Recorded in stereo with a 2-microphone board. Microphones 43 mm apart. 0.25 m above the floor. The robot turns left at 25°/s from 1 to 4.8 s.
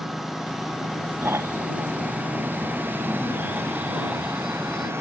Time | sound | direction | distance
0.0 | a lawn mower | 5° right | ?
1.2 | snoring | 85° right | ?